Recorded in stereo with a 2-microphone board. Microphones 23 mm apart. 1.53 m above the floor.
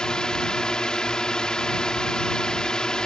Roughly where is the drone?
Left.